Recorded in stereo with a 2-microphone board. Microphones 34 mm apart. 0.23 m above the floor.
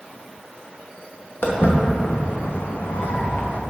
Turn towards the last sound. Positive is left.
turn(degrees=85)